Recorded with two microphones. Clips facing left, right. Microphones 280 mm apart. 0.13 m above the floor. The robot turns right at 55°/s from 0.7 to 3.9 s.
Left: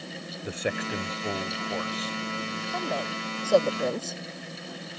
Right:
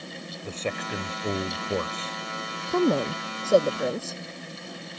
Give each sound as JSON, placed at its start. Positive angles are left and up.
{"t": 0.4, "sound": "a man speaking", "azimuth_deg": 170}
{"t": 2.7, "sound": "a woman speaking", "azimuth_deg": -70}